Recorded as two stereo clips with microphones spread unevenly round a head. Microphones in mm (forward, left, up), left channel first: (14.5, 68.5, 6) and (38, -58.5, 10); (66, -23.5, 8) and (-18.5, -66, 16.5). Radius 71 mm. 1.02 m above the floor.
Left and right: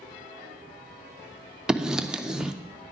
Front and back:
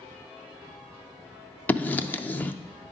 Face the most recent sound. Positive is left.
turn(degrees=5)